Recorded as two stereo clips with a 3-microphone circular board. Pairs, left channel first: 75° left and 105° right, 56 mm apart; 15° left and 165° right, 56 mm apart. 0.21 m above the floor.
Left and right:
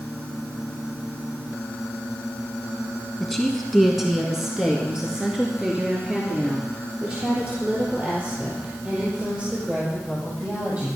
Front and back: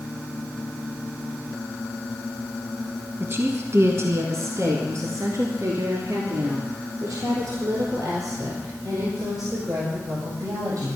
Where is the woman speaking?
160° left, 1.6 m; by 11.0 s 170° right, 6 m.